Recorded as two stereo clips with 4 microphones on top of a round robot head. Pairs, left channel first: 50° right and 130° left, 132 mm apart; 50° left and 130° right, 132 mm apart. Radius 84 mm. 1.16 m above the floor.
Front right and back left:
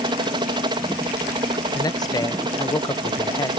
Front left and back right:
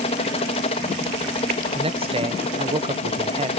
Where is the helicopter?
80° left.